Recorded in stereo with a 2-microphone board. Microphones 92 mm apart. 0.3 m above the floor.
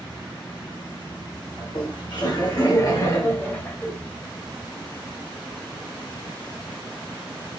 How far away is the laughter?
About 2.5 m.